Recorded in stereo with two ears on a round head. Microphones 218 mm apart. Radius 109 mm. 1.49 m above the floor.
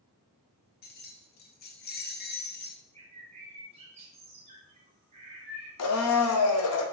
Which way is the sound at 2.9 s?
25° right (ahead or behind).